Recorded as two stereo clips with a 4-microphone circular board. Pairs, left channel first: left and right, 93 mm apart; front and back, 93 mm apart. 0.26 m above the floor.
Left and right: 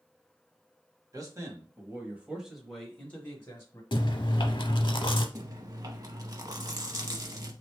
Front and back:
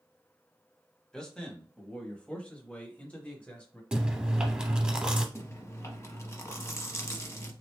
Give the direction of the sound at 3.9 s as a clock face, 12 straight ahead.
9 o'clock.